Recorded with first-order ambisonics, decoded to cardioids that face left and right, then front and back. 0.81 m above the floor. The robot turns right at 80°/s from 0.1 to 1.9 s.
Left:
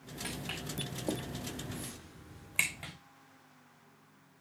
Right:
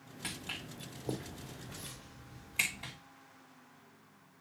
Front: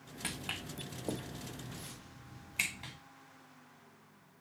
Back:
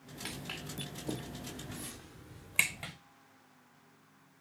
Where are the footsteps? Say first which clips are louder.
Left 1 dB, front 2 dB; 10° right, 3 m; by 2.9 s 150° left, 3 m.